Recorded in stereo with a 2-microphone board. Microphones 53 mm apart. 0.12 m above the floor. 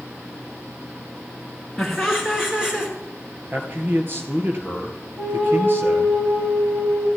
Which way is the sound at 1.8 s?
5° right (ahead or behind).